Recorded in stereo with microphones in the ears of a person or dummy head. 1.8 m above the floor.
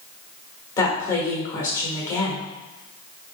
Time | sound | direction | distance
0.8 | a woman speaking | 15° left (ahead or behind) | 1.6 m